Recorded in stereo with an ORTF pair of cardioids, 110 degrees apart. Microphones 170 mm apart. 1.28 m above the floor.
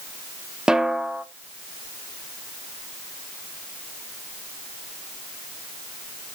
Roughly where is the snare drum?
Ahead.